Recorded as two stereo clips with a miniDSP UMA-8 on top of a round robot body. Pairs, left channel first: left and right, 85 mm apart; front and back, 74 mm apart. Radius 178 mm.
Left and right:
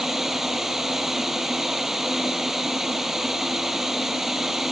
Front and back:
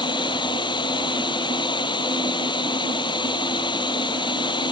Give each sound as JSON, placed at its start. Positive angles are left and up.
{"t": 0.0, "sound": "running water", "azimuth_deg": -5}